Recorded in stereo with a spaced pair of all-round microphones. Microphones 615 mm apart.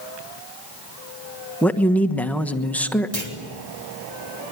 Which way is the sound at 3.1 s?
65° right (ahead or behind).